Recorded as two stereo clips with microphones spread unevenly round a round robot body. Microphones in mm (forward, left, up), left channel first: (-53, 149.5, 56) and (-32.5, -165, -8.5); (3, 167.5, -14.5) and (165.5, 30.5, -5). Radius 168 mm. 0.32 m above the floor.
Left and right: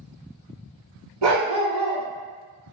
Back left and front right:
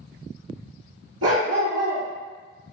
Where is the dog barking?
40° right, 1.4 m.